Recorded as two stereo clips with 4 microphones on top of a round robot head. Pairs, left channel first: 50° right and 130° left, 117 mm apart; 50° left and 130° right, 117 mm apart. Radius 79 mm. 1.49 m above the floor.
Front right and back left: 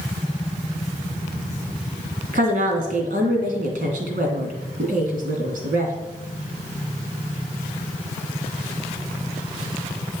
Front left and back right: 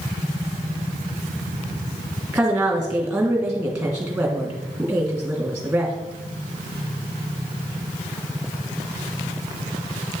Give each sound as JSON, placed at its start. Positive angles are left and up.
{"t": 2.3, "sound": "a woman speaking", "azimuth_deg": 145, "distance_m": 2.5}